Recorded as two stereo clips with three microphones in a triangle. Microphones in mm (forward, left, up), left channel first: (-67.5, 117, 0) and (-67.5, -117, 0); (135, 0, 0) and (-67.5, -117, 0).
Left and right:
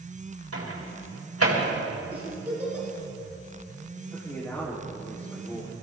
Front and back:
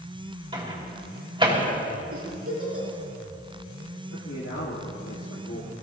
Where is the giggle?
175° right, 5 m.